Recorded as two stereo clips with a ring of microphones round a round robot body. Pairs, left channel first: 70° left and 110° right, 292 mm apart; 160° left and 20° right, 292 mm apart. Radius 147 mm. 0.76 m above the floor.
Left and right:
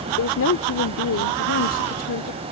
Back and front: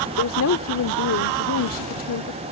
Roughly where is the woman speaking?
Behind left.